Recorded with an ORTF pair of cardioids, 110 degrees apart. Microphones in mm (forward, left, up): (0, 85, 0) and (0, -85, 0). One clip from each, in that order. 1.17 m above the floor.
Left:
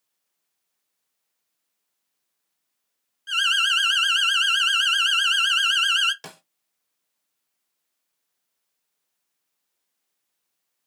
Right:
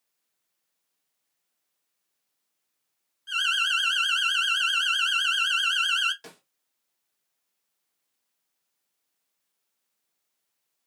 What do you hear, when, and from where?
3.3 s an alarm: 25° left, 0.5 m
6.2 s a snare drum: 45° left, 0.7 m